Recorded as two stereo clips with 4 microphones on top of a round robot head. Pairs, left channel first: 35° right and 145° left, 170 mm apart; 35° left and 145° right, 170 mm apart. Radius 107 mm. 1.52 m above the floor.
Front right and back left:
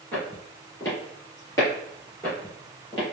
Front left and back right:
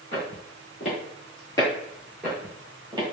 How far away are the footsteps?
About 1.9 m.